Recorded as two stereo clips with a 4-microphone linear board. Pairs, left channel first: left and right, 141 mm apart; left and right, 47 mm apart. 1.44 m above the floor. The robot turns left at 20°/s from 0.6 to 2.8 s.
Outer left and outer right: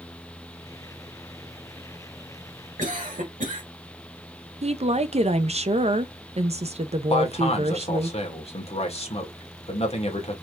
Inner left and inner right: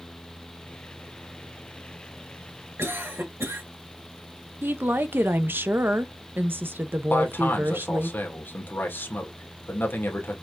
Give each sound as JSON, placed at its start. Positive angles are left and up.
{"t": 2.8, "sound": "a cough", "side_deg": -65, "distance_m": 2.5}
{"t": 4.6, "sound": "a woman speaking", "side_deg": -50, "distance_m": 0.6}
{"t": 7.1, "sound": "a man speaking", "side_deg": 45, "distance_m": 1.5}